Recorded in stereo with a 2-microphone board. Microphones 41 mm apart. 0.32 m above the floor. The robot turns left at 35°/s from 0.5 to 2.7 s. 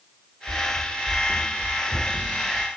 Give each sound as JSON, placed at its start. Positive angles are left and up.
{"t": 0.5, "sound": "running footsteps", "side_deg": -80, "distance_m": 1.2}